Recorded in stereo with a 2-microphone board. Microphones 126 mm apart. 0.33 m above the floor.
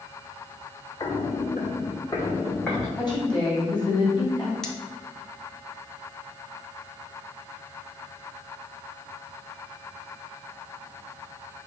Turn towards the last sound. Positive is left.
turn(degrees=5)  # may be behind; listen again after turning